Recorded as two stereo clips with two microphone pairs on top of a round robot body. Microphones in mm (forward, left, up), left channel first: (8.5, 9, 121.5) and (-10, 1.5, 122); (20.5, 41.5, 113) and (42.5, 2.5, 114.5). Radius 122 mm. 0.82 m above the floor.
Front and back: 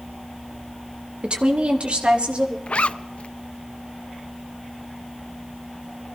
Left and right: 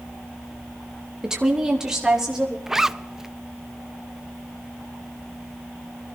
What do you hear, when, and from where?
1.2 s a woman speaking: 135° right, 1.4 m; by 2.6 s 140° right, 2.5 m
2.7 s a zipper: 25° left, 0.5 m